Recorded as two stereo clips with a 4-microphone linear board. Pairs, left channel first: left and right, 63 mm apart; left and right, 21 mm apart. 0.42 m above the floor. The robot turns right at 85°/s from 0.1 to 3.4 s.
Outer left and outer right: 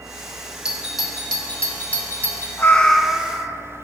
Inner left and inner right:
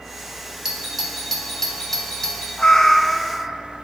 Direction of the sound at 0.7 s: 15° right (ahead or behind).